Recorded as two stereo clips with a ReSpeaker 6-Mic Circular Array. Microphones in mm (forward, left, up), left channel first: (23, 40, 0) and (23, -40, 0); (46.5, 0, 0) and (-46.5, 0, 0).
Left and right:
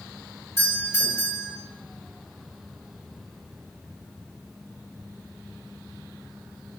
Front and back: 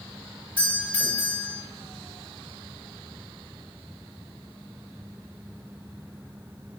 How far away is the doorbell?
About 2 m.